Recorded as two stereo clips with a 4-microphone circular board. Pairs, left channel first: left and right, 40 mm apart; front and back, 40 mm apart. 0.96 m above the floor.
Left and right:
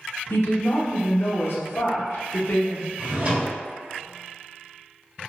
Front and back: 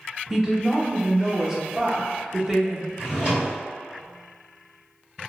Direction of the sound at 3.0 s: 125° right.